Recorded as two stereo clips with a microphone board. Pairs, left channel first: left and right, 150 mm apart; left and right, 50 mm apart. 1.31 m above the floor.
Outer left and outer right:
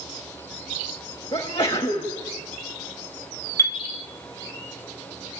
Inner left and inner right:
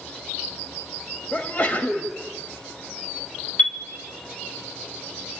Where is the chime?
20° left (ahead or behind), 1.3 m.